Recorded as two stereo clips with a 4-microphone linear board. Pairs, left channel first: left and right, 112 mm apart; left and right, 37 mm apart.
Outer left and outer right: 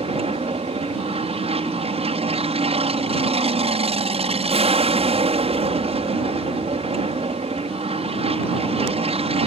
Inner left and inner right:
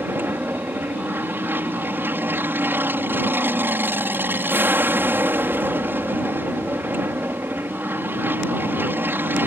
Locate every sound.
0.0 s an aircraft: 65° right (ahead or behind)